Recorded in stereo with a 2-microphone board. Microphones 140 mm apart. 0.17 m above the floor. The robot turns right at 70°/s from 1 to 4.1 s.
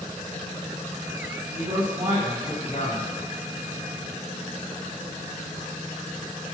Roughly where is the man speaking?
Ahead right.